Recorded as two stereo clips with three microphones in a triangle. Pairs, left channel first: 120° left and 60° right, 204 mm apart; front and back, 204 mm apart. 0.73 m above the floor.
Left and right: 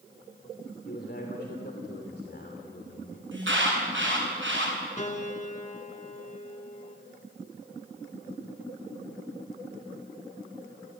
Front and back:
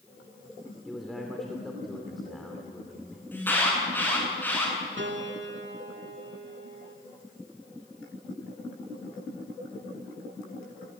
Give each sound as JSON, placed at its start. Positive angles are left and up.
{"t": 0.8, "sound": "a man speaking", "azimuth_deg": 90, "distance_m": 2.5}
{"t": 3.3, "sound": "an alarm", "azimuth_deg": -80, "distance_m": 7.5}
{"t": 5.0, "sound": "a piano", "azimuth_deg": 170, "distance_m": 1.9}